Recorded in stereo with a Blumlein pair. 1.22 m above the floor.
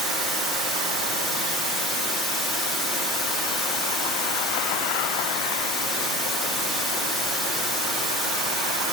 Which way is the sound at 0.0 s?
Straight ahead.